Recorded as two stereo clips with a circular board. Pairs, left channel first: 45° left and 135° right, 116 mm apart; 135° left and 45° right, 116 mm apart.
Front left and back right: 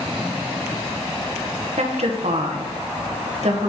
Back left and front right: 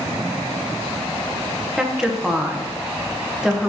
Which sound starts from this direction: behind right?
A woman speaking, at 1.8 s.